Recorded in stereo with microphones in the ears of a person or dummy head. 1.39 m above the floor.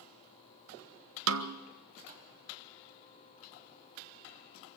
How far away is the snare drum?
About 1.4 m.